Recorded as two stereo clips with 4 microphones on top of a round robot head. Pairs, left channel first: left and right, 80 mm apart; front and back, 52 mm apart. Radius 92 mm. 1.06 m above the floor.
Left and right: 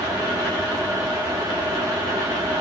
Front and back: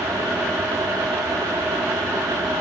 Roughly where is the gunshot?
No gunshot in this recording.